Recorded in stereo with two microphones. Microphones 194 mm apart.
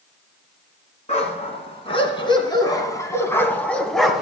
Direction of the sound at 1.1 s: 35° left (ahead or behind).